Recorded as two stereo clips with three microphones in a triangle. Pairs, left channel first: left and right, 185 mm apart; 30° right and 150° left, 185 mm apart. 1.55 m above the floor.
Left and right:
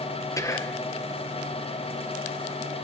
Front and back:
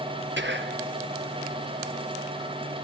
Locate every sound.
0.4 s whispering: 160° left, 1.5 m